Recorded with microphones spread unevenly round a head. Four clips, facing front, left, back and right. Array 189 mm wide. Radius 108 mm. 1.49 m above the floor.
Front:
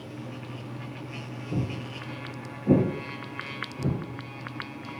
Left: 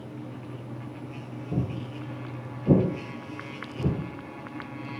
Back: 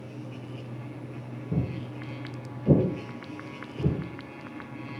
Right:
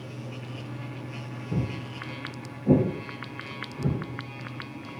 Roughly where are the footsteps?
Behind right.